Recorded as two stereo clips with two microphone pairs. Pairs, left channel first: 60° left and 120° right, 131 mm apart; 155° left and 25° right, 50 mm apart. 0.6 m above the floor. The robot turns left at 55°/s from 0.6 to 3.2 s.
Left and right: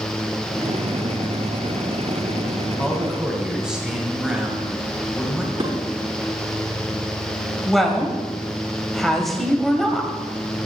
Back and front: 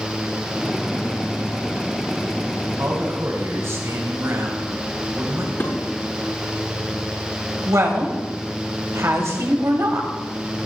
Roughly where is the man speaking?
Ahead.